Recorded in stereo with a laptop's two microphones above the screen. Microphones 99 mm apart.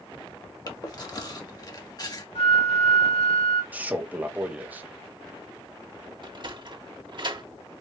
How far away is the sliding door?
About 1.5 m.